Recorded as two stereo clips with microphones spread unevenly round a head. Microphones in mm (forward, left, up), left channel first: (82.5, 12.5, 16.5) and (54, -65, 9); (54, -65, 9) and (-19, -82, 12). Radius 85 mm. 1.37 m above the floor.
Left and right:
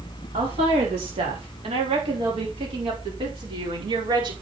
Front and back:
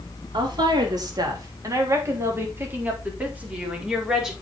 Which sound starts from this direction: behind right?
A woman speaking, at 0.3 s.